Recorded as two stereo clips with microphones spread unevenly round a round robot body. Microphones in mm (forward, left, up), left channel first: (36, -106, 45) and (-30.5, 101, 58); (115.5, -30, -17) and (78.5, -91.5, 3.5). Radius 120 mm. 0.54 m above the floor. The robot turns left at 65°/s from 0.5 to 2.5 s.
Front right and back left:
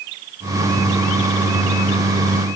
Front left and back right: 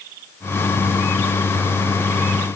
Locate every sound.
Only background noise.